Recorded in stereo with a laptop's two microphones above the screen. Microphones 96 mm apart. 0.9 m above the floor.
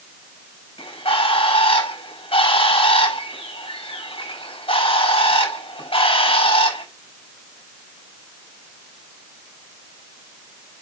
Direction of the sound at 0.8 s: 80° left.